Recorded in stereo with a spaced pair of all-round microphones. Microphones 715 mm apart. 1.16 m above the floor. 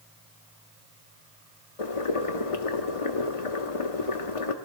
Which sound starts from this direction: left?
Boiling, at 1.8 s.